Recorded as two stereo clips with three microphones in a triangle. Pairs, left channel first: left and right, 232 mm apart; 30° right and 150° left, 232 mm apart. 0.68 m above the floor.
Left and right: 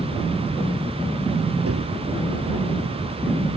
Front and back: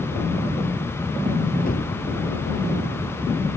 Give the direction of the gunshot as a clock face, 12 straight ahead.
3 o'clock.